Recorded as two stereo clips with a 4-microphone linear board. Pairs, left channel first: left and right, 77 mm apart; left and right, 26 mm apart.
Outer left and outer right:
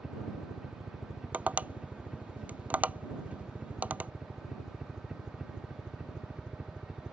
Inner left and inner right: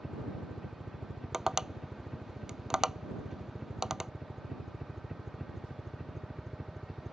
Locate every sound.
0.0 s a helicopter: 5° right (ahead or behind); by 7.1 s 15° right (ahead or behind)
1.3 s tapping: 20° right (ahead or behind)